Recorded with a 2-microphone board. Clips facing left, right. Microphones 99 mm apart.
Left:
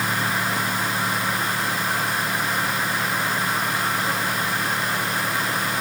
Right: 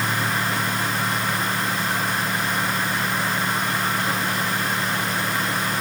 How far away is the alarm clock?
No alarm clock in this recording.